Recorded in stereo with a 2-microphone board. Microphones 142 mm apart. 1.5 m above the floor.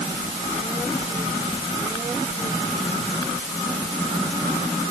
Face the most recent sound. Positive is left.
No sound to turn to.